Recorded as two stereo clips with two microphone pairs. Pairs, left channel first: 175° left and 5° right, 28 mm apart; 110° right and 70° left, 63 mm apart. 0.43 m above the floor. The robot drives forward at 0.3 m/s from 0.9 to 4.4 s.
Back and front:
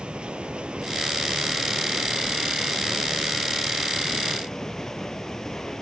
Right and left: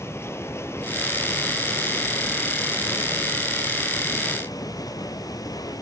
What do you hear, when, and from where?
0.0 s running water: 65° right, 1.3 m; by 5.8 s 115° right, 1.3 m